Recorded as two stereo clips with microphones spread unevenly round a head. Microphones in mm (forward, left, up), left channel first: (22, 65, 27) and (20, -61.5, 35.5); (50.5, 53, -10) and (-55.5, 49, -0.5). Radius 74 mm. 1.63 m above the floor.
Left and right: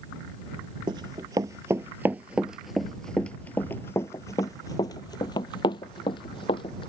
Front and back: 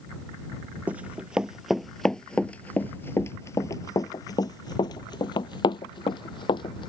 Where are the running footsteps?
120° right; by 6.9 s 40° left.